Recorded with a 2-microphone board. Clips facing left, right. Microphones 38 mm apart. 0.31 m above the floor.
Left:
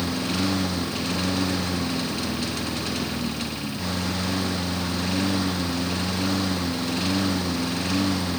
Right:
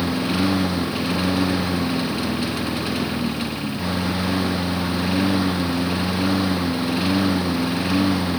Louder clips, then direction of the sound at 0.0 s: Right 4 dB; 20° right (ahead or behind).